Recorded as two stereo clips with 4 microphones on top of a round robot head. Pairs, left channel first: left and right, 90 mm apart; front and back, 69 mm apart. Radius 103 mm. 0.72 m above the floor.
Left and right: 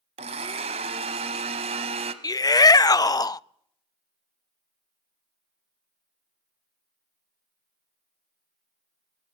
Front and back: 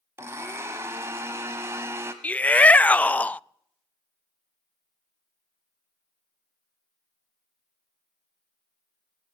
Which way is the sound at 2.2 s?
65° left.